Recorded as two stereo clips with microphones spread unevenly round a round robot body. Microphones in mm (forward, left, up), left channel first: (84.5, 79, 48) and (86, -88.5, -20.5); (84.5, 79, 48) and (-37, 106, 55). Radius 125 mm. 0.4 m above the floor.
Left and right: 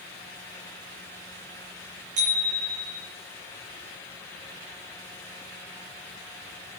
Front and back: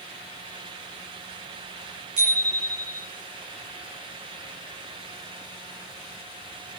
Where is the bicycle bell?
145° right, 7 m.